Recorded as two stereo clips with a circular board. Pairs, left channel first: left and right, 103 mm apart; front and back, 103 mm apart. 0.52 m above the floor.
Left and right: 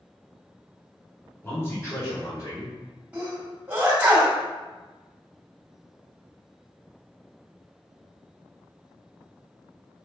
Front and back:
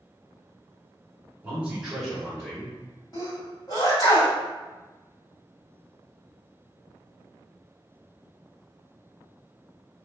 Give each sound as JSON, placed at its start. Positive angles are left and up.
{"t": 1.4, "sound": "a man speaking", "azimuth_deg": 135, "distance_m": 1.3}
{"t": 3.1, "sound": "a sneeze", "azimuth_deg": -20, "distance_m": 1.5}